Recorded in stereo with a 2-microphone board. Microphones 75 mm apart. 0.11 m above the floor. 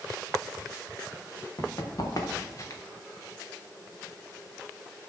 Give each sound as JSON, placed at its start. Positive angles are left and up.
{"t": 1.6, "sound": "running footsteps", "side_deg": 55, "distance_m": 3.5}